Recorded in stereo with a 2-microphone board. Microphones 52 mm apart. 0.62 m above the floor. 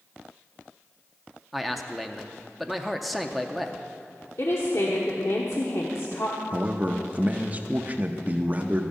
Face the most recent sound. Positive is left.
turn(degrees=-30)  # may be behind; listen again after turning